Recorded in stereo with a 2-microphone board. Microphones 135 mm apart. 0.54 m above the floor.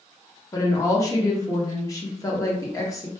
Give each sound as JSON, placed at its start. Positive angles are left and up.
{"t": 0.5, "sound": "a woman speaking", "side_deg": 25, "distance_m": 0.7}